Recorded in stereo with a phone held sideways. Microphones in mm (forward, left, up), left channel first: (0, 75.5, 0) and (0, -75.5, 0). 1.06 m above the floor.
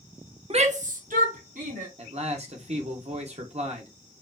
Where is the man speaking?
45° right (ahead or behind), 1.0 m.